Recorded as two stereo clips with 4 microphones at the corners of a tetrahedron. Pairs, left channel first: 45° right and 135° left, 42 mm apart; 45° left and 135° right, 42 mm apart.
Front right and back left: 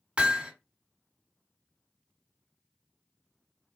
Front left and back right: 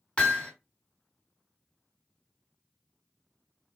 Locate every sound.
0.2 s hammering: 90° left, 1.3 m